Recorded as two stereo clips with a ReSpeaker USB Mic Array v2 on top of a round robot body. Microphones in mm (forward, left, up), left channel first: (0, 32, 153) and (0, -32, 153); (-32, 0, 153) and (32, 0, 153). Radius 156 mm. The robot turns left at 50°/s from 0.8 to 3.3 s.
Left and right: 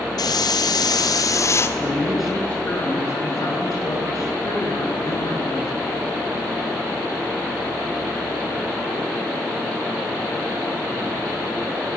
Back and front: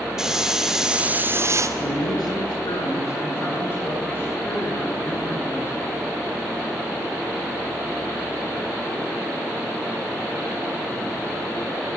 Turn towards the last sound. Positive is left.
turn(degrees=125)